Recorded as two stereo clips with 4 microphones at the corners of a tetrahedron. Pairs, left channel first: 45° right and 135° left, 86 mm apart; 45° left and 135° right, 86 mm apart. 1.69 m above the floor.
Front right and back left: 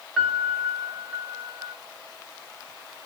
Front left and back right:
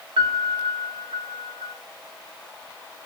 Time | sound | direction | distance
0.2 | a piano | 140° right | 2 m